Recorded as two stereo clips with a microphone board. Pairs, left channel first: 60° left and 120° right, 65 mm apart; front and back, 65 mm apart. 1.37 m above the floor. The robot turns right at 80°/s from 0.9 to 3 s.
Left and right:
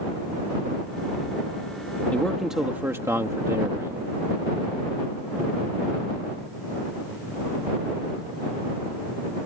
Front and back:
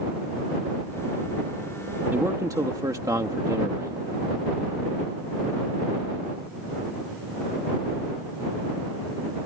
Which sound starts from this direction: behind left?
A man speaking, at 2.1 s.